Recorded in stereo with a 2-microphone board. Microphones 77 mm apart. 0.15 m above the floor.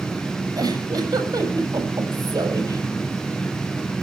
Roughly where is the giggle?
Right.